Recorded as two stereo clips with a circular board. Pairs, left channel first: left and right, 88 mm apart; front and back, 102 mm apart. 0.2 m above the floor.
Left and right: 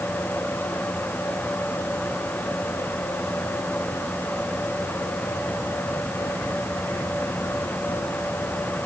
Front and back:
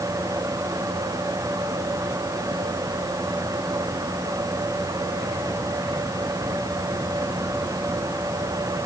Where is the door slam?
No door slam in this recording.